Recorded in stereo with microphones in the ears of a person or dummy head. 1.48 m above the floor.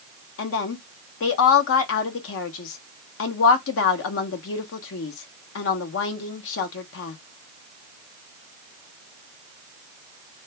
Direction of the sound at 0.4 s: 70° left (ahead or behind).